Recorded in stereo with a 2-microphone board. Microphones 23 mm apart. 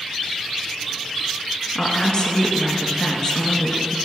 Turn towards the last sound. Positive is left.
turn(degrees=50)  # may be behind; listen again after turning